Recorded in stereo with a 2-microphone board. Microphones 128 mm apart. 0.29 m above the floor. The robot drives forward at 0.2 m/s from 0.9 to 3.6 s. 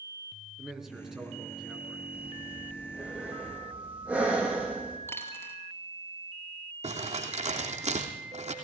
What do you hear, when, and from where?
0.6 s a man speaking: 5° right (ahead or behind), 4 m
2.1 s breathing: 10° right (ahead or behind), 4.5 m
5.1 s a dropped coin: 20° left (ahead or behind), 2.5 m
6.8 s crumpling: 60° right (ahead or behind), 3 m